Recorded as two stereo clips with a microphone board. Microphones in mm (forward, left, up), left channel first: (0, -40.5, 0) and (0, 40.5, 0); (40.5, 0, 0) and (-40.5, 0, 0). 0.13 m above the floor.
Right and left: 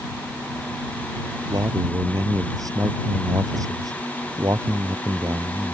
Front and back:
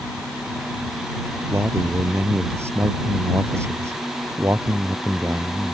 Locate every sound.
1.5 s a man speaking: 125° left